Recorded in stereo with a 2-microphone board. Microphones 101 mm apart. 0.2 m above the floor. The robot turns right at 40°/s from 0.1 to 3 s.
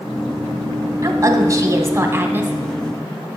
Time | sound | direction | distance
1.0 | a woman speaking | 95° right | 1.2 m